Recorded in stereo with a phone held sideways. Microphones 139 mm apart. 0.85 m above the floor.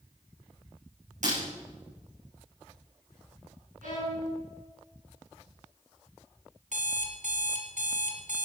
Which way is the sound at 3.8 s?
80° right.